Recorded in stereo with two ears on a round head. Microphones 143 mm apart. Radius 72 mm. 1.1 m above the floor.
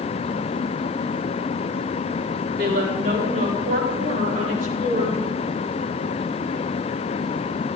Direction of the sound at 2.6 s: 75° right (ahead or behind).